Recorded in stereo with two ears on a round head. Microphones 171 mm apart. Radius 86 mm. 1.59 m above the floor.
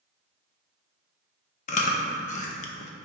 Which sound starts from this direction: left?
Chewing, at 1.7 s.